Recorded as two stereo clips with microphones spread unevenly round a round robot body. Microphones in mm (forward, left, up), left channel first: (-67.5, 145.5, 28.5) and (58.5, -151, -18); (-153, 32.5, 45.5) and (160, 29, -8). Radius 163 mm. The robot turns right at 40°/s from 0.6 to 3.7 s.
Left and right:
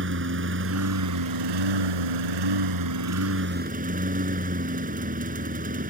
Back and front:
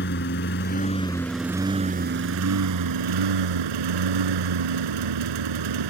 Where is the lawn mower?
125° right; by 5.9 s straight ahead.